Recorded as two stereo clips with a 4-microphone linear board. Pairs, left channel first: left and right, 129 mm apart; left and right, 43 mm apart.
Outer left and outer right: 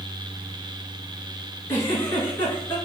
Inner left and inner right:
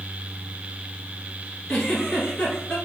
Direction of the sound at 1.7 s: 20° left (ahead or behind).